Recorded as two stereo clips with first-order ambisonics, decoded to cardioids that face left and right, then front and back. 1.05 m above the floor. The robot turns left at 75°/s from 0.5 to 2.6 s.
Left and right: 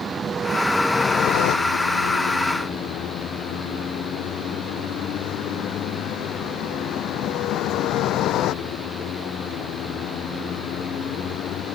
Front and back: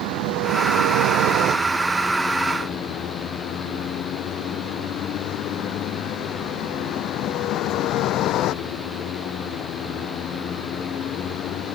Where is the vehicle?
160° right; by 11.8 s 45° left.